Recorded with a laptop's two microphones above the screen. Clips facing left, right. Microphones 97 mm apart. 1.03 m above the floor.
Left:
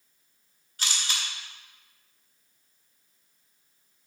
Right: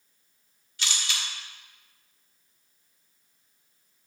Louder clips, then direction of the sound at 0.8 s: Even; 40° left (ahead or behind).